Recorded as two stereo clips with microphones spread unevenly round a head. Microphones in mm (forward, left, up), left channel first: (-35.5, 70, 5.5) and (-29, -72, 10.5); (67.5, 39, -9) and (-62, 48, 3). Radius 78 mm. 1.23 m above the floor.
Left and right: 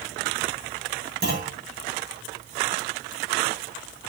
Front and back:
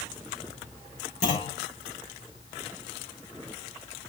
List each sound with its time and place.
1.2 s a clunk: 55° right, 9.5 m